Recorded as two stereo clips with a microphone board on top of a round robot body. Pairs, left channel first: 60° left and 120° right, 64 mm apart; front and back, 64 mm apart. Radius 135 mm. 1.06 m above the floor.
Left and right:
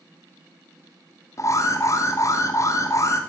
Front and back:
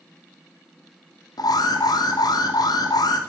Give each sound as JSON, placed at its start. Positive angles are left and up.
{"t": 1.4, "sound": "an alarm", "azimuth_deg": 15, "distance_m": 2.0}